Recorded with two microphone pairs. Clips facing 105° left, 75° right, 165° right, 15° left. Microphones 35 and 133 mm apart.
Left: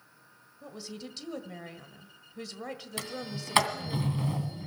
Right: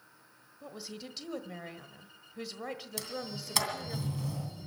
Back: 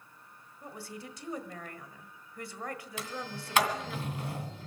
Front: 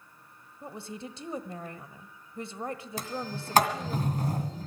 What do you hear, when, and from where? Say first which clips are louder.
0.6 s a woman speaking: left 2 dB, front 4 dB; 10° left, 1.3 m
3.0 s a sliding door: left 5 dB, front 4 dB; 60° left, 2 m